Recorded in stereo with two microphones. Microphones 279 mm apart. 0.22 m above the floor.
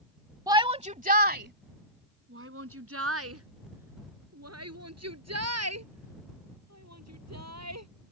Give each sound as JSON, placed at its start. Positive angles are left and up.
{"t": 0.5, "sound": "a shout", "side_deg": -15}